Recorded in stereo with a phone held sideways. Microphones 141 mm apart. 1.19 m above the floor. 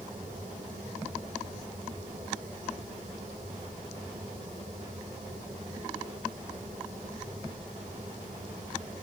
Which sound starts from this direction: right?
A fan, at 0.0 s.